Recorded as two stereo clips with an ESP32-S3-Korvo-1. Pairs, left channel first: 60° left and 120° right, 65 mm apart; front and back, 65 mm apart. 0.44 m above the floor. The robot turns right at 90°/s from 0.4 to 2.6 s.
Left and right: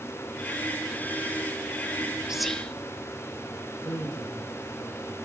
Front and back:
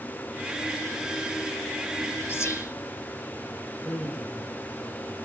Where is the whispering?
45° right, 1.4 m; by 2.7 s 15° right, 1.4 m.